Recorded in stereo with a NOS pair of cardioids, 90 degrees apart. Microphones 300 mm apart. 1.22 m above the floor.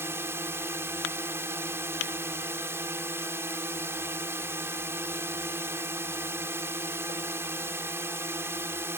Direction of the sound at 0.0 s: 10° right.